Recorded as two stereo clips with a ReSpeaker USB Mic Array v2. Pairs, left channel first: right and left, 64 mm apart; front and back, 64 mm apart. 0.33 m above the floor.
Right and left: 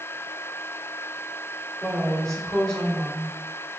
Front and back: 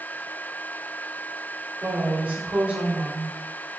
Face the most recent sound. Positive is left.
turn(degrees=-160)